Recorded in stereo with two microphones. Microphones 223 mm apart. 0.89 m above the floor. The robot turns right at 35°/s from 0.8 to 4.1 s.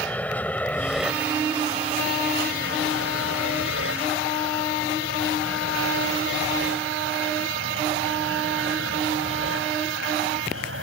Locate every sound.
0.0 s an aircraft: 5° left (ahead or behind); by 10.8 s 70° right (ahead or behind)